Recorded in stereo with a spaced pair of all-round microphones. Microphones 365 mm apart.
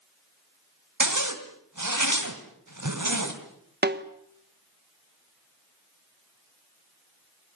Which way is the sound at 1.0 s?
55° right (ahead or behind).